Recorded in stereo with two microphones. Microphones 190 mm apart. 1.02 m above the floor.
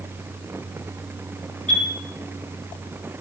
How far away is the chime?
About 3 m.